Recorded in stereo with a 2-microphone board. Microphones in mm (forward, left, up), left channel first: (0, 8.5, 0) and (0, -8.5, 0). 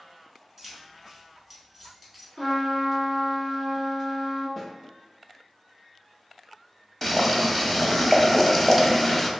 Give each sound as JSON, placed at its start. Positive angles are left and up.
{"t": 0.6, "sound": "keys jangling", "side_deg": 0, "distance_m": 1.9}
{"t": 2.4, "sound": "a trumpet", "side_deg": 30, "distance_m": 1.6}
{"t": 4.6, "sound": "a snare drum", "side_deg": 15, "distance_m": 1.2}
{"t": 7.0, "sound": "boiling", "side_deg": 15, "distance_m": 0.6}